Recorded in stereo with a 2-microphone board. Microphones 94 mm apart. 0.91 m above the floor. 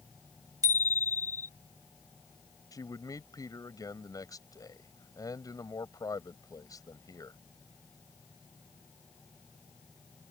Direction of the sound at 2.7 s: 40° left (ahead or behind).